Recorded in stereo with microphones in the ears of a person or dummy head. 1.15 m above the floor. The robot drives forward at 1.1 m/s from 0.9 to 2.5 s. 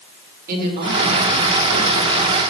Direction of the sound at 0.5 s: 50° right (ahead or behind).